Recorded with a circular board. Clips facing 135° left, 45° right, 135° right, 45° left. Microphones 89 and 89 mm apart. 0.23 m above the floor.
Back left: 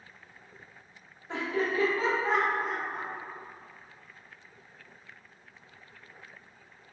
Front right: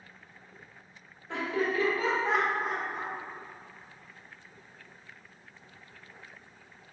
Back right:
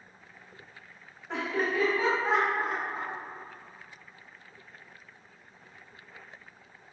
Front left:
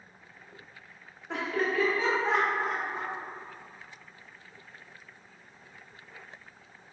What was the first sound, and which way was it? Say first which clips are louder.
Laughter: even, even; 135° left.